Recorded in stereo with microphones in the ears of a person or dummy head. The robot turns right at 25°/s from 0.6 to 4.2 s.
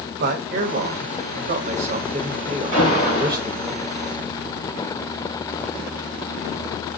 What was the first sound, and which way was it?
A man speaking, 95° right.